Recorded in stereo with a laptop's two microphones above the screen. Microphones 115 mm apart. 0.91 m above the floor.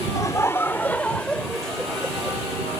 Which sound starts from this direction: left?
Laughter, at 0.1 s.